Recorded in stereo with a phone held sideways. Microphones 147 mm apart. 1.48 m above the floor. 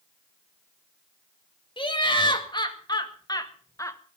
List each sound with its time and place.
1.8 s laughter: 35° left (ahead or behind), 2.5 m; by 4.0 s 20° left (ahead or behind), 1.2 m